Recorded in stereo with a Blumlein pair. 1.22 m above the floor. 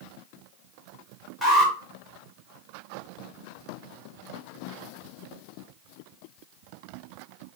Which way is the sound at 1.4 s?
5° left.